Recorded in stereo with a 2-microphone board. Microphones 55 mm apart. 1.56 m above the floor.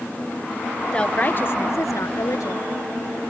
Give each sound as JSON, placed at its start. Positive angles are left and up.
{"t": 0.9, "sound": "a woman speaking", "side_deg": 20}